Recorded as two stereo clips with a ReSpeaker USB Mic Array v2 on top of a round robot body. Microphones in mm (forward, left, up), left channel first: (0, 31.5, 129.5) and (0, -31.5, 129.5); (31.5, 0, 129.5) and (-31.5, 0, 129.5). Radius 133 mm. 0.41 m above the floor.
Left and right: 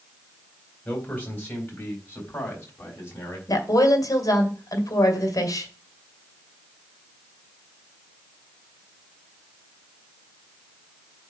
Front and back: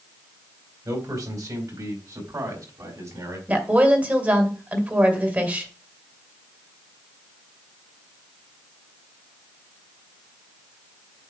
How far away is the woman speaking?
About 2.5 m.